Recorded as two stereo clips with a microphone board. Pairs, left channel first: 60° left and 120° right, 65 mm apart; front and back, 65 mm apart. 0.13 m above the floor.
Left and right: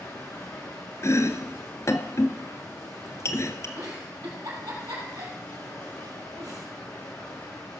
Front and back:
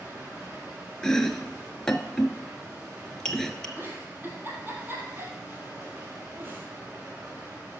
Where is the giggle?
125° right, 3.5 m.